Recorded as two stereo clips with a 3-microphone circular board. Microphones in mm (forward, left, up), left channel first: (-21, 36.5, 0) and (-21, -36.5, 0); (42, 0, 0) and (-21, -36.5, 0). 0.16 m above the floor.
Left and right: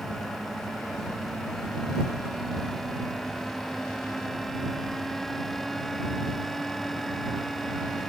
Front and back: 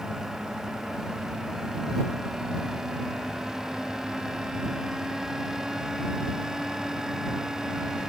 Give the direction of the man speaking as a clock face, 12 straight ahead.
I don't hear a man speaking.